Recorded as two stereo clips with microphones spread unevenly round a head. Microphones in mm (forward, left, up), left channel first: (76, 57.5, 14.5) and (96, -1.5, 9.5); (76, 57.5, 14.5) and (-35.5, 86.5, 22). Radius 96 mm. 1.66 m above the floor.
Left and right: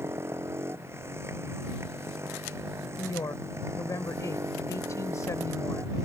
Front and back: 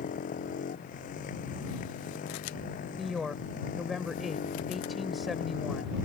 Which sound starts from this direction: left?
A woman speaking, at 3.0 s.